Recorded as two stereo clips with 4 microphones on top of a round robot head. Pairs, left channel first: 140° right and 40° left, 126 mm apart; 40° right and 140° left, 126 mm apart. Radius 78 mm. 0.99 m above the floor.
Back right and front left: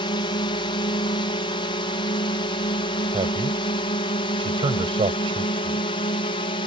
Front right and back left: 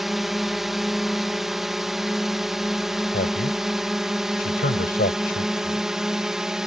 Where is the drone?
135° right.